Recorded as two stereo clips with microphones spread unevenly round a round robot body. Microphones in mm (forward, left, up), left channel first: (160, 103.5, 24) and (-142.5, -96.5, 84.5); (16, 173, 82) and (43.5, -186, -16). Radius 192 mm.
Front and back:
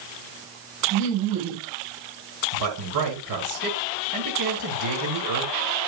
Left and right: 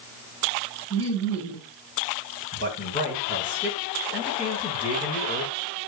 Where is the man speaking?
175° left, 6.5 m.